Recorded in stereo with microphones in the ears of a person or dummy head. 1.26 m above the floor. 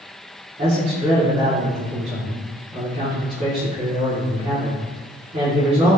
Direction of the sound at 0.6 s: 40° right (ahead or behind).